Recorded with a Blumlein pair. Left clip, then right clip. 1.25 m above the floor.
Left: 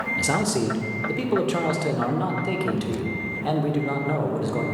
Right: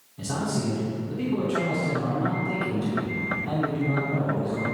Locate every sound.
0.2 s a man speaking: 40° left, 1.0 m